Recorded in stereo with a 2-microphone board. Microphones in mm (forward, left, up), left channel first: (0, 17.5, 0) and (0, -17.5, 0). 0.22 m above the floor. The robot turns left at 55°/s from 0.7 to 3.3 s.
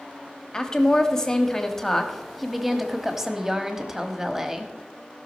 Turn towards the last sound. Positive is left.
turn(degrees=-15)  # may be behind; listen again after turning